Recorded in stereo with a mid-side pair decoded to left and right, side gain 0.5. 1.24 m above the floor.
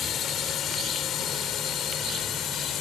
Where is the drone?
60° left; by 2.8 s 65° left.